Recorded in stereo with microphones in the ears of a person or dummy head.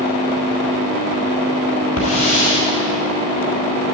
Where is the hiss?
40° left (ahead or behind), 4.5 m.